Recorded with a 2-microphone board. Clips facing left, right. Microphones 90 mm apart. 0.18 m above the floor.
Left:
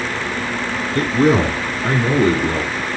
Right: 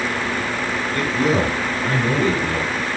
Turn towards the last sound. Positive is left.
turn(degrees=40)  # may be behind; listen again after turning